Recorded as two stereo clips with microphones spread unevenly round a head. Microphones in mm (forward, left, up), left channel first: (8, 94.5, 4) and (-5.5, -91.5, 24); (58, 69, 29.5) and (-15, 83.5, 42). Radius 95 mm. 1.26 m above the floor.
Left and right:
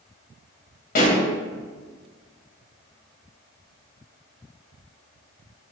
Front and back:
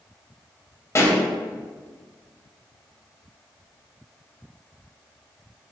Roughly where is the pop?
Ahead left.